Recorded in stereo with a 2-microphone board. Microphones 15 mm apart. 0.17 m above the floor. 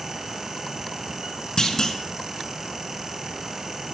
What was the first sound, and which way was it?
A clunk, 45° left (ahead or behind).